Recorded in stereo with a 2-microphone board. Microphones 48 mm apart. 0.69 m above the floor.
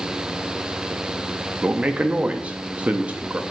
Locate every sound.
1.6 s a man speaking: 25° right (ahead or behind), 0.5 m